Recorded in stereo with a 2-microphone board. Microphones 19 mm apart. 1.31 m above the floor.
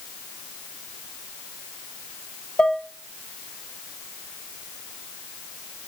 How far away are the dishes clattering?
About 1.3 m.